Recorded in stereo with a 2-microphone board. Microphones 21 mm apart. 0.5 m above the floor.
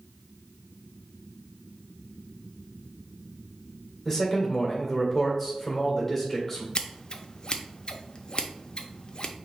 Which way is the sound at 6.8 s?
45° left (ahead or behind).